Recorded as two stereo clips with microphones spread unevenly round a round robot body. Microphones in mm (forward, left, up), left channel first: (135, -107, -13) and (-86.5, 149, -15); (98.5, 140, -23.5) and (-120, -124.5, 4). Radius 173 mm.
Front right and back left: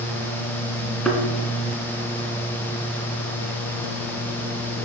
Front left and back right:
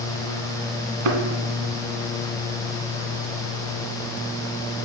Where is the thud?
140° right, 1.6 m.